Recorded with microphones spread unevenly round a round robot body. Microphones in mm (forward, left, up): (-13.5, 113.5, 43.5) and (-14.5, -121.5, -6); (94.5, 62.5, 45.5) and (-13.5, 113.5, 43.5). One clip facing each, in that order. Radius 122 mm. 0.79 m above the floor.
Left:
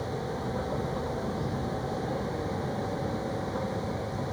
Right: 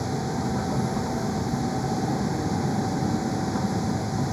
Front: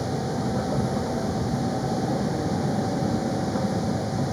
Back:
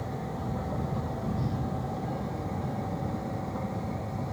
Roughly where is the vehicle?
Ahead right.